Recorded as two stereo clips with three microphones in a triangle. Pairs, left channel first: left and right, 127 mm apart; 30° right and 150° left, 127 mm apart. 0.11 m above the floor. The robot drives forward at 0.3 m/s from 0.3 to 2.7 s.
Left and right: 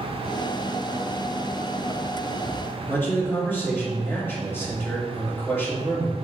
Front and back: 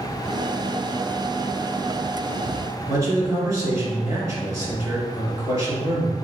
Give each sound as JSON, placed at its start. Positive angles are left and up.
{"t": 2.9, "sound": "a man speaking", "azimuth_deg": 140, "distance_m": 1.6}